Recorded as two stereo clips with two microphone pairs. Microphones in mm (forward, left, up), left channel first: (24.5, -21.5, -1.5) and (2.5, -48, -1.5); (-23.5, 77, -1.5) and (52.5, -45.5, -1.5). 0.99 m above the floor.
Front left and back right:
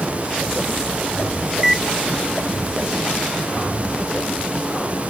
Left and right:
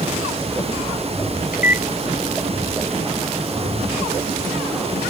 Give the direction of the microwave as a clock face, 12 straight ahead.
7 o'clock.